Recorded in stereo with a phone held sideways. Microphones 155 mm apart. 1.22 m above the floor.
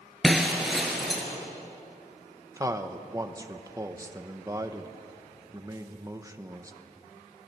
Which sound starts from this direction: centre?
Breaking glass, at 0.2 s.